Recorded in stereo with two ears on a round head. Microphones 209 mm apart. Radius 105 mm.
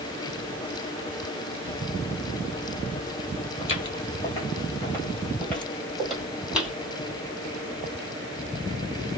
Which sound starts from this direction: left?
Footsteps, at 3.6 s.